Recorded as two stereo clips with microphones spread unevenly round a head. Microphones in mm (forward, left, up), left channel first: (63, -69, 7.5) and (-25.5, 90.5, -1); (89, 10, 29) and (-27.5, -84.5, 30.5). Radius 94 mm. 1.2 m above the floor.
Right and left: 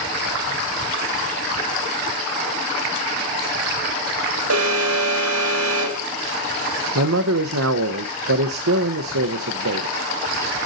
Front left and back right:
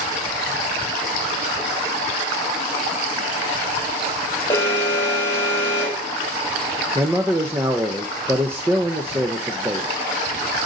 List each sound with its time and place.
4.5 s an alarm: 115° left, 1.8 m
7.0 s a man speaking: 140° left, 0.6 m